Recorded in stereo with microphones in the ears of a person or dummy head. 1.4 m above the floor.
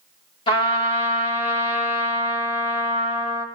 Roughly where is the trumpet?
Left.